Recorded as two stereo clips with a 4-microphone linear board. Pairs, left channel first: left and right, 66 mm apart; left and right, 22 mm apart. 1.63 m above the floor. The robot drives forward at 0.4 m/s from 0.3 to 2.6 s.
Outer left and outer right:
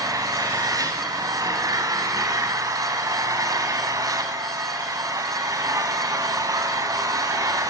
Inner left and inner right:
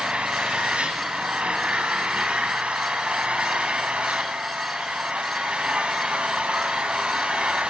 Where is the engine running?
65° right (ahead or behind), 3 m; by 7.7 s 60° right (ahead or behind), 3 m.